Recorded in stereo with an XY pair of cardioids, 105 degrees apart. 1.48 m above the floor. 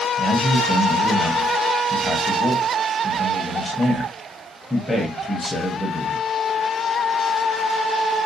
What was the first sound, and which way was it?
A man speaking, 5° left.